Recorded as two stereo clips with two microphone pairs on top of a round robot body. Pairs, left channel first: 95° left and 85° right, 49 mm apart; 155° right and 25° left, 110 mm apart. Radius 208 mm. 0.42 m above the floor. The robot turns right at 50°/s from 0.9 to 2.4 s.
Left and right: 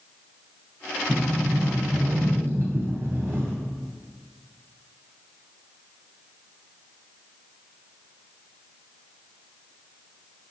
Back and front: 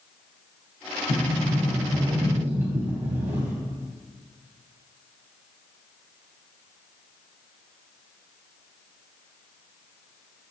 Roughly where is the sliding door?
Behind right.